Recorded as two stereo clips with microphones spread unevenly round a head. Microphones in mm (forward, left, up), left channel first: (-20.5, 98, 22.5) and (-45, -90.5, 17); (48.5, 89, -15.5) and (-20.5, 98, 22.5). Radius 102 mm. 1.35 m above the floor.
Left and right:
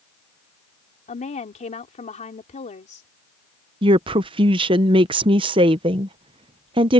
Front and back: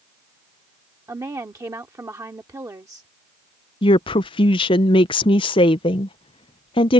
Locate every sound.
1.1 s a woman speaking: 135° left
3.8 s a woman speaking: 30° right